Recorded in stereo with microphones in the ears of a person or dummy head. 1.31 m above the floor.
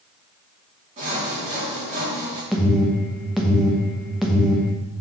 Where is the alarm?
Centre (ahead or behind), 1.1 m.